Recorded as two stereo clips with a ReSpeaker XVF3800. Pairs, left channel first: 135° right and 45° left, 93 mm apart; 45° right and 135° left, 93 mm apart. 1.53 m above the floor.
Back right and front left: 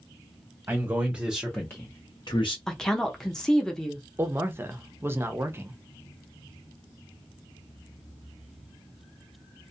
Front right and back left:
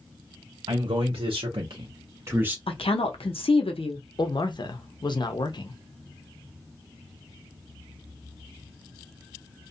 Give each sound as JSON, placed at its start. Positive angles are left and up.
{"t": 0.7, "sound": "a man speaking", "azimuth_deg": 105, "distance_m": 0.9}
{"t": 2.7, "sound": "a woman speaking", "azimuth_deg": -50, "distance_m": 0.7}
{"t": 4.2, "sound": "a man speaking", "azimuth_deg": -20, "distance_m": 0.5}